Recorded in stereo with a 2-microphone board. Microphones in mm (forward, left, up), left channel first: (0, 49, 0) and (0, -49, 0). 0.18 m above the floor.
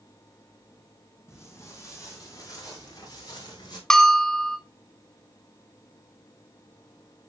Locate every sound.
1.3 s footsteps: 25° left (ahead or behind), 4 m; by 3.8 s 45° left (ahead or behind), 4.5 m
3.9 s a bell: 5° left (ahead or behind), 0.6 m